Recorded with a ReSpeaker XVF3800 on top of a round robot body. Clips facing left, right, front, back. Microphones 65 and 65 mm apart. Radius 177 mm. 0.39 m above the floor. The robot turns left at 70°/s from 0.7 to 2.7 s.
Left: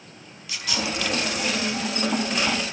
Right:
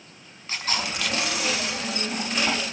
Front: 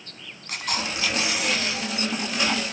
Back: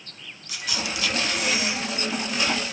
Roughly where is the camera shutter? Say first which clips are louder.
Even, front 2 dB; ahead right.